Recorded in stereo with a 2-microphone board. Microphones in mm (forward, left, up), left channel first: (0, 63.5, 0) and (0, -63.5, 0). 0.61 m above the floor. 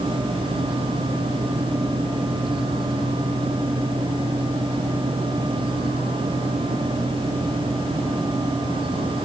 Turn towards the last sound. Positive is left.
No sound to turn to.